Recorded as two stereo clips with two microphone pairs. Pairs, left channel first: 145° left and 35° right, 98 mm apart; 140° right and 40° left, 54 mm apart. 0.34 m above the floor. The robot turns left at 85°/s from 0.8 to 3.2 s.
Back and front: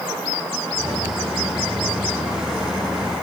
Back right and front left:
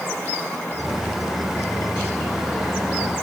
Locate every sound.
Only background noise.